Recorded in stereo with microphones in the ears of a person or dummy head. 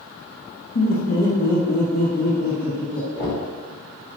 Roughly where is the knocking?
Left.